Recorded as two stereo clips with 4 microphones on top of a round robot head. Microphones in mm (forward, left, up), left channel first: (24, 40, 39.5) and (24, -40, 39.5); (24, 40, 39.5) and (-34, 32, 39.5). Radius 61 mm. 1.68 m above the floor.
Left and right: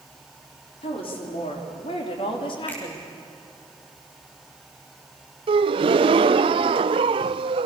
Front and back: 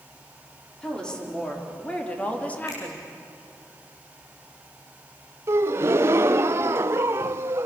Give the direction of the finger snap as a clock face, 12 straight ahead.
11 o'clock.